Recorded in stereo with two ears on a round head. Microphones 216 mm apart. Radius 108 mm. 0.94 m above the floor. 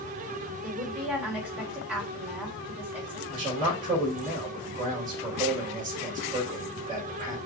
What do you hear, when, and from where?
0.6 s a woman speaking: 5° right (ahead or behind), 2.5 m
3.3 s a man speaking: 30° right (ahead or behind), 4 m